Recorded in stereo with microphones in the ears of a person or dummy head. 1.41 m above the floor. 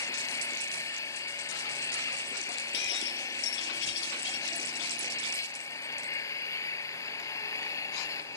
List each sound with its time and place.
0.0 s an engine running: 20° left (ahead or behind)
2.7 s breaking glass: 70° left (ahead or behind)